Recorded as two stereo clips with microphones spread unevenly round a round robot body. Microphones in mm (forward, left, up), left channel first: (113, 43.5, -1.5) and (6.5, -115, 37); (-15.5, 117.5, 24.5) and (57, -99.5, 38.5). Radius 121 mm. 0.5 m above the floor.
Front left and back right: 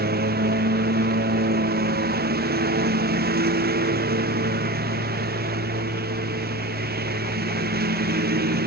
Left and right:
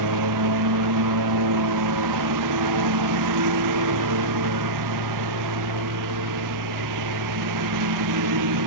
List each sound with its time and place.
0.0 s a lawn mower: 85° right